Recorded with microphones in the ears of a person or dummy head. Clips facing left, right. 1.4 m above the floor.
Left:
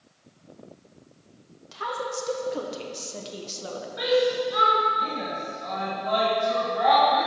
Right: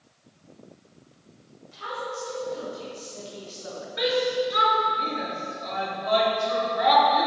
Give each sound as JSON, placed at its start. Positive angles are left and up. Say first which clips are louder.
{"t": 1.7, "sound": "a woman speaking", "louder": "left 3 dB", "side_deg": 75, "distance_m": 1.6}
{"t": 4.0, "sound": "a shout", "louder": "left 2 dB", "side_deg": -35, "distance_m": 2.5}